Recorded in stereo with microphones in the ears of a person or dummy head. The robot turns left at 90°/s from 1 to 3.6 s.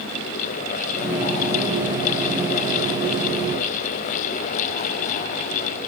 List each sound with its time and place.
Only background noise.